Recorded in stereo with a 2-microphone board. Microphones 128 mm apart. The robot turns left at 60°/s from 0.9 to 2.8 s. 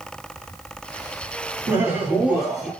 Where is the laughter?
15° right (ahead or behind), 1.7 m; by 2.7 s centre (ahead or behind), 1.7 m.